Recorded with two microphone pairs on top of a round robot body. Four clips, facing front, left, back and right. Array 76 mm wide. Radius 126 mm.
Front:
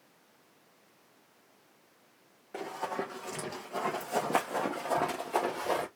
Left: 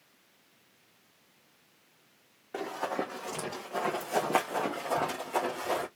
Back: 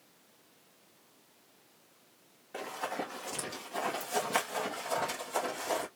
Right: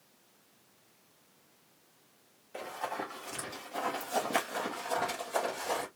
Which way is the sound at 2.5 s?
75° left.